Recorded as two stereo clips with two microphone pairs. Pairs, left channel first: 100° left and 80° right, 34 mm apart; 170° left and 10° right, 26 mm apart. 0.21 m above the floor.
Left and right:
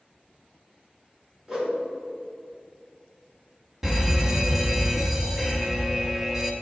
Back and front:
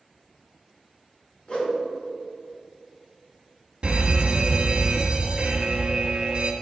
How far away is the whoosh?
About 2.0 m.